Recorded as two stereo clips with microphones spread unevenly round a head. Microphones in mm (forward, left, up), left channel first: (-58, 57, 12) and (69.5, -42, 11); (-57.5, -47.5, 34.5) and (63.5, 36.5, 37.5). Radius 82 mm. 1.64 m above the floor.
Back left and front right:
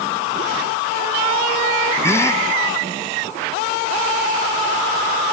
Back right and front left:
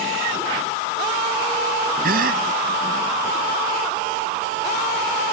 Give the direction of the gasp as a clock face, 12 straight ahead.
10 o'clock.